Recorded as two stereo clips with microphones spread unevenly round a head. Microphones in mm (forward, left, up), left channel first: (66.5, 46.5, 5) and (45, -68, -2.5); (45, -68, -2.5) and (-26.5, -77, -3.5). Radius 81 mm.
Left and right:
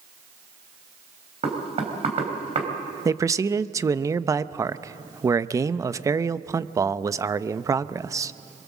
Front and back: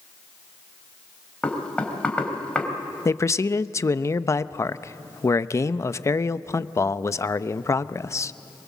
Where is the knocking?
65° right, 3.5 m.